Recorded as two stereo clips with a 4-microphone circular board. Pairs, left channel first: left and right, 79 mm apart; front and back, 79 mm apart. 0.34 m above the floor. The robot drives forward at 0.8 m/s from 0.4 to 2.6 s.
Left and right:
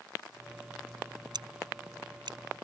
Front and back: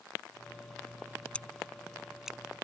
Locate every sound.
1.3 s scissors: 75° right; by 2.4 s 100° right